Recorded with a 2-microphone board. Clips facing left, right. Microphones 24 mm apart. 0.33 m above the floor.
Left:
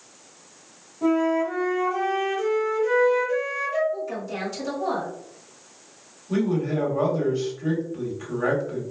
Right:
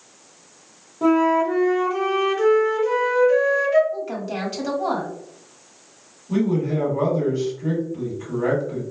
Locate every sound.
1.0 s a flute: 45° right (ahead or behind), 0.9 m
3.9 s a woman speaking: 35° right (ahead or behind), 1.4 m
6.3 s a man speaking: 15° left (ahead or behind), 1.8 m